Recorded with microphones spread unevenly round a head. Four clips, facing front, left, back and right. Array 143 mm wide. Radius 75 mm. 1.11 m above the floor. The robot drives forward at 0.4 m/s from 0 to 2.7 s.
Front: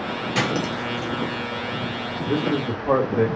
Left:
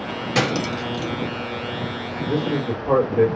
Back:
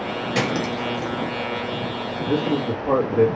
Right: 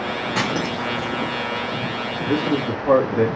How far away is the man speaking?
About 1.6 m.